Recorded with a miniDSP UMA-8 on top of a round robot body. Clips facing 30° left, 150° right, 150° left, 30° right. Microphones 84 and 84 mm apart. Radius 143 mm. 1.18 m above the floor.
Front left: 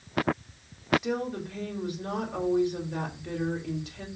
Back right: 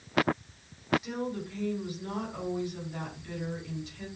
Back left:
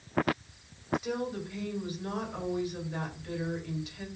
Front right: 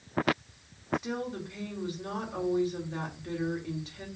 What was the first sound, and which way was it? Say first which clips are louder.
A woman speaking: front left 3 dB, back left 1 dB; 25° left.